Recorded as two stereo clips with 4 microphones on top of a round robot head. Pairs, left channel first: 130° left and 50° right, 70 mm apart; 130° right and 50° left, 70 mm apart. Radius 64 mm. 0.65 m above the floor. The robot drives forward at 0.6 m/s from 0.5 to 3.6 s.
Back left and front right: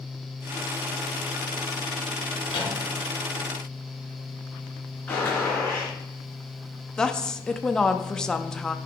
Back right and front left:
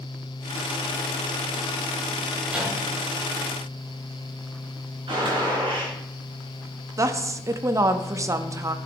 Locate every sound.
2.5 s a microwave: 125° left, 4.5 m
5.1 s a gunshot: 65° left, 3.5 m
7.0 s a woman speaking: 55° left, 0.6 m